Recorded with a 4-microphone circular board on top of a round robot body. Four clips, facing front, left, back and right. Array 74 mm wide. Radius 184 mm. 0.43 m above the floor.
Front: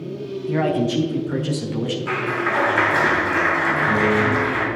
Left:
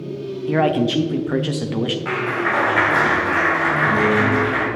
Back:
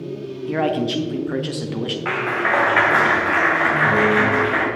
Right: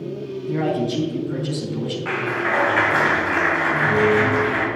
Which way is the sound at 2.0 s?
Straight behind.